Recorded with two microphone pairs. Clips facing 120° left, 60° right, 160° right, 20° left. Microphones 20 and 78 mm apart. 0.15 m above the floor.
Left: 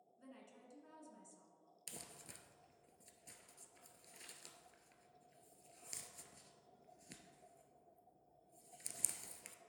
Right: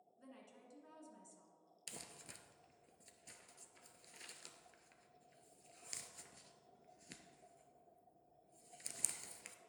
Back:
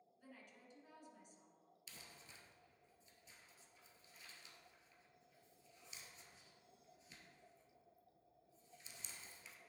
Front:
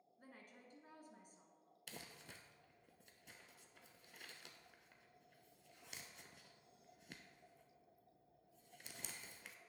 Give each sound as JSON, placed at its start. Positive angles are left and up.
{"t": 0.2, "sound": "a woman speaking", "azimuth_deg": 25, "distance_m": 1.6}
{"t": 1.9, "sound": "crumpling", "azimuth_deg": 15, "distance_m": 0.7}